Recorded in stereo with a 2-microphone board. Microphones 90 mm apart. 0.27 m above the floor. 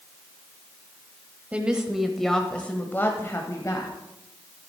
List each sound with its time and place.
1.5 s a woman speaking: 15° right (ahead or behind), 1.1 m; by 3.9 s 40° left (ahead or behind), 1.3 m